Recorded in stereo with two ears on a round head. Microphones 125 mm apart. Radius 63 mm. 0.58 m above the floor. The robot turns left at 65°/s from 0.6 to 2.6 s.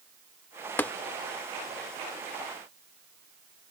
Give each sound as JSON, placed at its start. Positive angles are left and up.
{"t": 0.8, "sound": "tapping", "side_deg": 15}